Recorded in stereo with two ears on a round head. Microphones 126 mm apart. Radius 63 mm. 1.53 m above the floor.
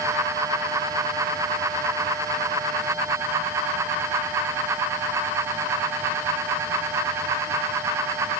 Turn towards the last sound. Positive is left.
No sound to turn to.